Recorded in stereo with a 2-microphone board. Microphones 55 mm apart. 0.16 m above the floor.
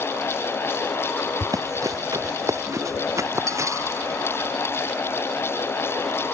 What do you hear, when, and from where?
1.4 s running footsteps: 80° right; by 4.2 s 60° right (ahead or behind)